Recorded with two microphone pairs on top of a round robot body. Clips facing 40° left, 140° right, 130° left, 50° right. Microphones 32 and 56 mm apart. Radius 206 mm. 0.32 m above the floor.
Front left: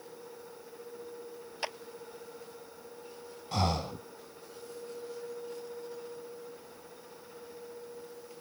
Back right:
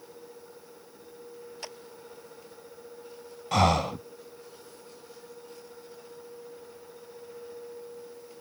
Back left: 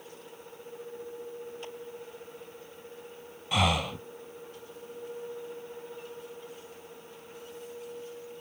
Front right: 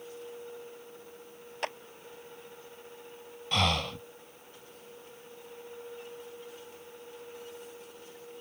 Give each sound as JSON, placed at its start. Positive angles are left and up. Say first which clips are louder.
{"t": 1.6, "sound": "a clap", "louder": "front left 7 dB, front right 6 dB", "azimuth_deg": -20}
{"t": 3.5, "sound": "breathing", "louder": "back right 8 dB, back left 2 dB", "azimuth_deg": -145}